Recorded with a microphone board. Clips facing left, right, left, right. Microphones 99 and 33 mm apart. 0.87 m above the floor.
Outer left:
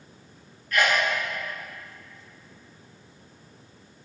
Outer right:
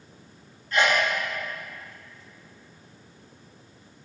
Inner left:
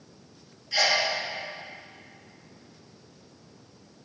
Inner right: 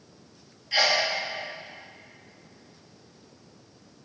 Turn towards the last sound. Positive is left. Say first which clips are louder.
# outer right 1 dB, inner right 1 dB
turn(degrees=-25)  # may be behind; listen again after turning